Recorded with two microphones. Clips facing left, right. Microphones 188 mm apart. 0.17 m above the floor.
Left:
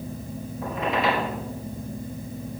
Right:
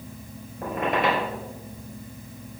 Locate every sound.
0.6 s a squeak: 55° right (ahead or behind), 2.5 m